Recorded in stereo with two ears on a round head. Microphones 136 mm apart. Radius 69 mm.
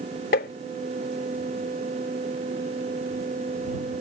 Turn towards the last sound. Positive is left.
turn(degrees=65)  # may be behind; listen again after turning